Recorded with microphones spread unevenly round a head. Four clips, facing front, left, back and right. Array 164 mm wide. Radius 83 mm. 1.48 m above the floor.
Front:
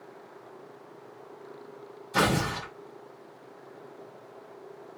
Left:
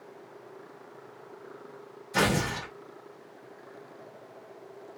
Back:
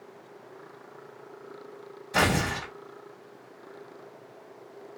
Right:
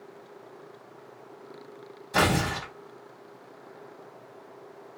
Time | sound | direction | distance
2.1 | tearing paper | 130° right | 1.6 m